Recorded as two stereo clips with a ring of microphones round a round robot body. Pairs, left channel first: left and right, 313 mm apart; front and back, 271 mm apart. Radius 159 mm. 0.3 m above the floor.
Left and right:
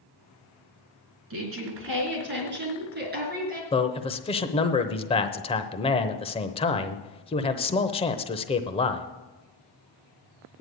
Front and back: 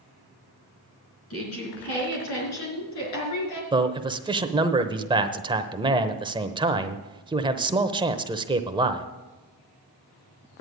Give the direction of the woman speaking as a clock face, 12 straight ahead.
1 o'clock.